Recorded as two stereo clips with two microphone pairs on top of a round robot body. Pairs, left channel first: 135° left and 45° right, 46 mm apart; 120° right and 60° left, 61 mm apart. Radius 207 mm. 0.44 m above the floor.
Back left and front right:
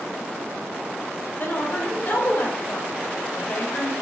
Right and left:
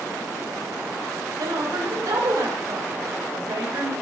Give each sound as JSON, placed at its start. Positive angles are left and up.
{"t": 1.4, "sound": "a woman speaking", "azimuth_deg": 90, "distance_m": 3.0}